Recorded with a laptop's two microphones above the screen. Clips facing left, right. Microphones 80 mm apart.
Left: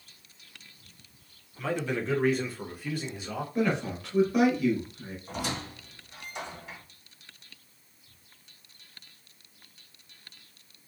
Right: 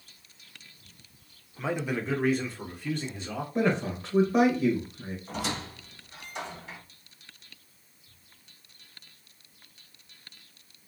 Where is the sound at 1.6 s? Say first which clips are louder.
Even; 20° right (ahead or behind), 0.5 m; by 3.5 s 10° left (ahead or behind), 1.4 m.